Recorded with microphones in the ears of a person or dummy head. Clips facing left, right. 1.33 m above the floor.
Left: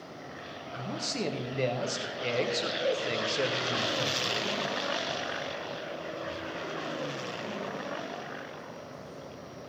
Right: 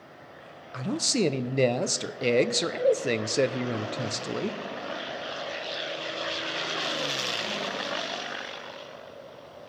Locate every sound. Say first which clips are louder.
0.7 s a man speaking: right 8 dB; 60° right (ahead or behind), 0.5 m